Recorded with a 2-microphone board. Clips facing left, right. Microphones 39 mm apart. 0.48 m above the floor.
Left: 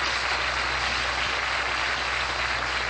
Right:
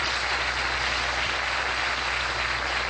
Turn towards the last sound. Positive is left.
turn(degrees=55)  # may be behind; listen again after turning